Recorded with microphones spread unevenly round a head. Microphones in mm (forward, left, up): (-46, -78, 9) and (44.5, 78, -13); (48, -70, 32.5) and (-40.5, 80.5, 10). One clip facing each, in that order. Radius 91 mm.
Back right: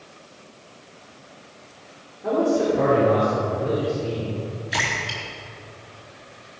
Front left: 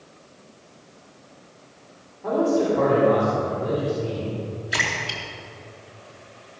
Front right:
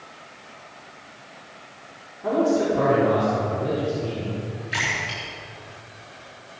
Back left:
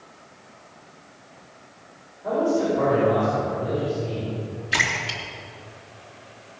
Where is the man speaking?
45° right, 4 m.